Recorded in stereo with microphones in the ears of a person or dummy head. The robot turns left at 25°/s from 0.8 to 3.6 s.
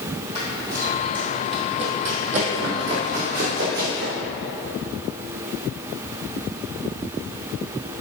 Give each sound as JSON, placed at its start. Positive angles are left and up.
{"t": 0.3, "sound": "running footsteps", "side_deg": -20, "distance_m": 1.4}